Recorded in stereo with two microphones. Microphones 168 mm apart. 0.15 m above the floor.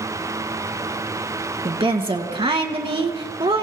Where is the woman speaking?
35° right (ahead or behind), 1.3 m.